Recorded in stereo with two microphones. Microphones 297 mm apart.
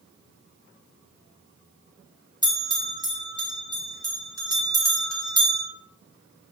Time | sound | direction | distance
2.4 | a bell | 15° right (ahead or behind) | 1.4 m